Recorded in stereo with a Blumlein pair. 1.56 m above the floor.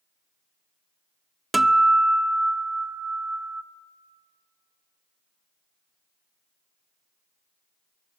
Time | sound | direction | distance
1.5 | a guitar | 5° right | 0.6 m